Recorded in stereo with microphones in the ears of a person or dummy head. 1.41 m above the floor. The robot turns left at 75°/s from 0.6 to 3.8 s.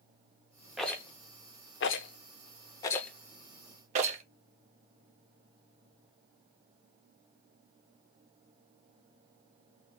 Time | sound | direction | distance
0.8 | a rattle | centre (ahead or behind) | 0.6 m